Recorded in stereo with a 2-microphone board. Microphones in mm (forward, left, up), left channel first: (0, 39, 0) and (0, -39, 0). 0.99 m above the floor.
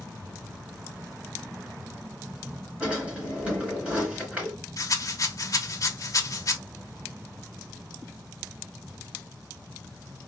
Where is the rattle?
45° left (ahead or behind), 0.9 m.